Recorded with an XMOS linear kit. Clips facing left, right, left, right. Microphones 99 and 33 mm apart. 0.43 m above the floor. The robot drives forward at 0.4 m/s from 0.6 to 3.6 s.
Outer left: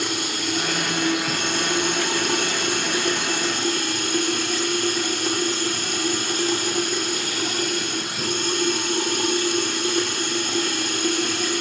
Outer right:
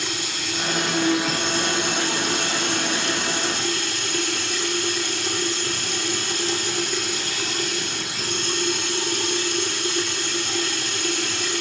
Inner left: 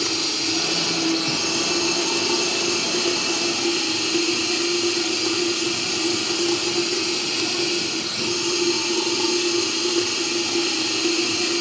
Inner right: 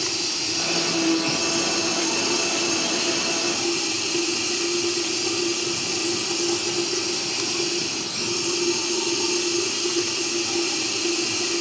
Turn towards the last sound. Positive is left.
turn(degrees=50)  # may be behind; listen again after turning